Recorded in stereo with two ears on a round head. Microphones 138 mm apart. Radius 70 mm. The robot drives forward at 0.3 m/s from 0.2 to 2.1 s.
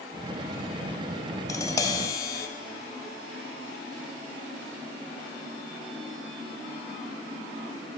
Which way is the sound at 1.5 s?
20° left (ahead or behind).